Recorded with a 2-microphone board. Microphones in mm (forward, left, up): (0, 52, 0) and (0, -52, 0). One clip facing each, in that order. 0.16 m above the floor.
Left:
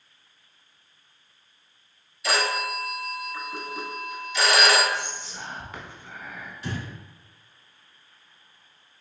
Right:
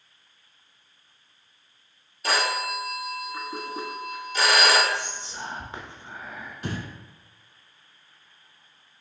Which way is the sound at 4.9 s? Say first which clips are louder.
Even; 30° right (ahead or behind).